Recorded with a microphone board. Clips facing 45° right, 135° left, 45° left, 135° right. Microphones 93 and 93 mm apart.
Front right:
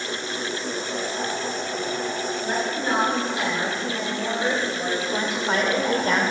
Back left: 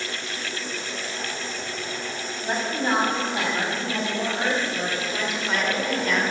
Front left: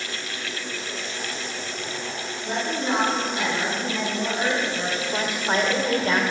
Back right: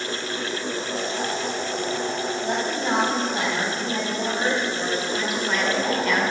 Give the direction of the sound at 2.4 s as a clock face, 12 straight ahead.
5 o'clock.